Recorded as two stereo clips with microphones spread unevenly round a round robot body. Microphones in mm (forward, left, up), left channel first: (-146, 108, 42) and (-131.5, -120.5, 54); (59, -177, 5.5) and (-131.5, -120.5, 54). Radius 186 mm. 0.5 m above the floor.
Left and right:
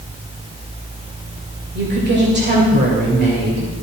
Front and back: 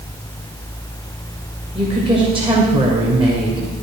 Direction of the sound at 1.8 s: 125° right.